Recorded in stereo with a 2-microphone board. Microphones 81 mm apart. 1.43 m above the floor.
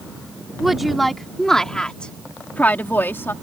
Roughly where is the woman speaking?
Centre.